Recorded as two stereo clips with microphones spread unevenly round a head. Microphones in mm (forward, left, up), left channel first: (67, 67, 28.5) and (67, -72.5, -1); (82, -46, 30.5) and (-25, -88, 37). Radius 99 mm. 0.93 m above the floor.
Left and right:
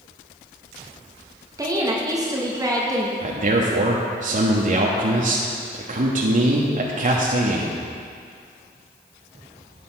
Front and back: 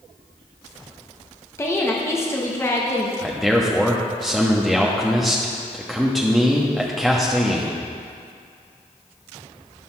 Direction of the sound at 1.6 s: 40° right.